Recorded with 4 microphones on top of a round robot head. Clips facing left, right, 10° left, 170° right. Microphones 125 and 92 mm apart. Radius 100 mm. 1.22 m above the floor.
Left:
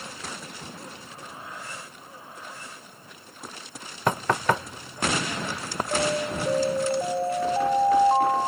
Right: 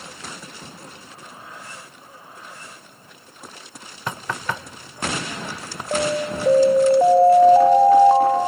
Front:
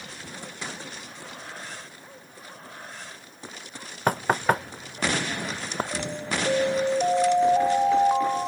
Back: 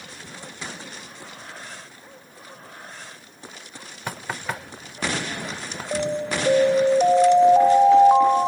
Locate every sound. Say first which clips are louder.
4.1 s knocking: left 5 dB, front 8 dB; 50° left
5.9 s an alarm: right 4 dB, back 6 dB; 95° right